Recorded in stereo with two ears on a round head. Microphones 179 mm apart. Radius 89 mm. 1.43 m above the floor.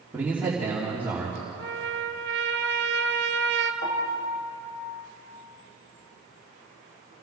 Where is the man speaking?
10° right (ahead or behind), 3 m.